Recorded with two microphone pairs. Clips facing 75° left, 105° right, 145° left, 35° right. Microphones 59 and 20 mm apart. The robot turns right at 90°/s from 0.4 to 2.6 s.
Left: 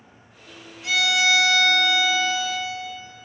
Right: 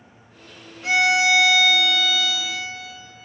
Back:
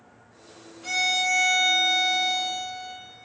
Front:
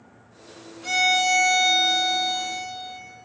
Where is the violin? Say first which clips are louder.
Right 3 dB, front 4 dB; 100° right, 1.0 m; by 3.0 s 60° left, 1.0 m.